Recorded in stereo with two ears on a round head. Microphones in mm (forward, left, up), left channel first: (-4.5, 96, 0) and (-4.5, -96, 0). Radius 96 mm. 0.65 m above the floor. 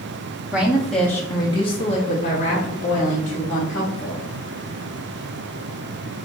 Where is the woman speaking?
5° right (ahead or behind), 0.9 m; by 4.2 s 40° left (ahead or behind), 2 m.